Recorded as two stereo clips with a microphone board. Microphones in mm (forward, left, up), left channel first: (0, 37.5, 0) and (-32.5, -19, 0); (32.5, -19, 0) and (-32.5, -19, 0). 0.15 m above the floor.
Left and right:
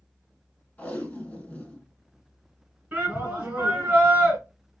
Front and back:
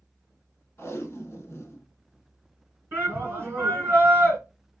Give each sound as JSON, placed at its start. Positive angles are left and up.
{"t": 0.8, "sound": "tape being pulled", "azimuth_deg": 10, "distance_m": 0.8}
{"t": 2.9, "sound": "a shout", "azimuth_deg": -165, "distance_m": 1.8}